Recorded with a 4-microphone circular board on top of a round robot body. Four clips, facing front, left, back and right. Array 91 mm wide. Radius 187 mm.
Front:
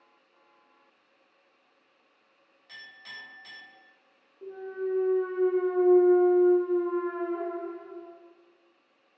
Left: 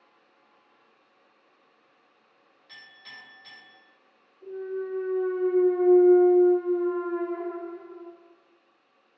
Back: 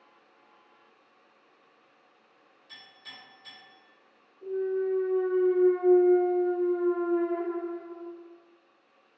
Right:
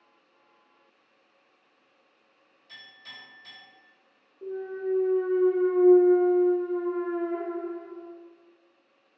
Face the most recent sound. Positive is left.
turn(degrees=-60)